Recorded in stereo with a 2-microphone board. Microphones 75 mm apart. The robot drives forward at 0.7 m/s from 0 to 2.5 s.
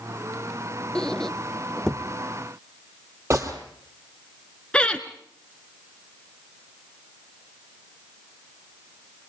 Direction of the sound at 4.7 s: 15° left (ahead or behind).